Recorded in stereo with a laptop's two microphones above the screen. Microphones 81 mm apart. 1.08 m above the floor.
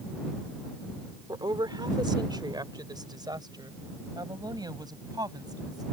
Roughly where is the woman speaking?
Right.